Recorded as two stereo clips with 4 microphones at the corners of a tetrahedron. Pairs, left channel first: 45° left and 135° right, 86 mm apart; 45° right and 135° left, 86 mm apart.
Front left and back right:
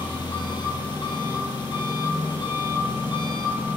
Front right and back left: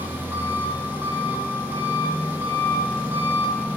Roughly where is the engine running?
Left.